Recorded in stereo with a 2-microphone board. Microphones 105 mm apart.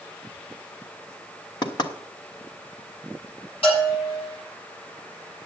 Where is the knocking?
40° left (ahead or behind), 1.1 m.